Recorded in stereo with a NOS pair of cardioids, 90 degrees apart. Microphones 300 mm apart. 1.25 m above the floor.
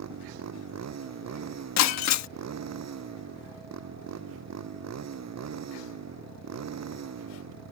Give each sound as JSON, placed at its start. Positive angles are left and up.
{"t": 0.0, "sound": "a motorcycle", "azimuth_deg": -60}
{"t": 1.8, "sound": "breaking glass", "azimuth_deg": 65}